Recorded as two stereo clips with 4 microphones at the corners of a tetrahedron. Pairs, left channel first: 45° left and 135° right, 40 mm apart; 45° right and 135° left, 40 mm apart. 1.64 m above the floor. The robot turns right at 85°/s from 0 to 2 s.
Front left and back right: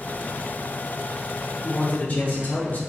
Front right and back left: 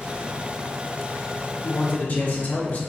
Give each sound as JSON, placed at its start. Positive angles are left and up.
{"t": 1.6, "sound": "a man speaking", "azimuth_deg": -30, "distance_m": 1.2}